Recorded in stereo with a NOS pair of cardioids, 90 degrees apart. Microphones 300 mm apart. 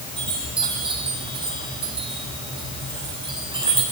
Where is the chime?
15° right, 8 m.